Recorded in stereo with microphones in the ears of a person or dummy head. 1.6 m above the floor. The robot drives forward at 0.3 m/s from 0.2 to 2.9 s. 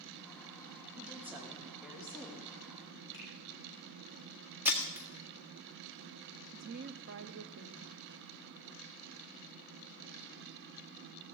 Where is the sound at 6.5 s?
70° right (ahead or behind), 0.7 m.